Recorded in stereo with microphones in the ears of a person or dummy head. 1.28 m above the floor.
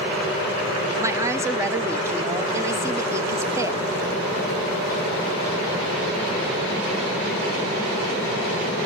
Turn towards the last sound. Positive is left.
turn(degrees=-10)  # may be behind; listen again after turning